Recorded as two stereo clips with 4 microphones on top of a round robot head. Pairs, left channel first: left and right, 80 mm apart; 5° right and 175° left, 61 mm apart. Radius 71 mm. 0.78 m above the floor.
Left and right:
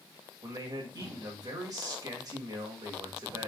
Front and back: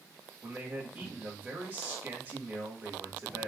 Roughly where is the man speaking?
Behind right.